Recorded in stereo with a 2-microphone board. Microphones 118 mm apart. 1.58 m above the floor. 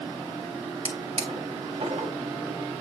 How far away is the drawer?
About 2.5 m.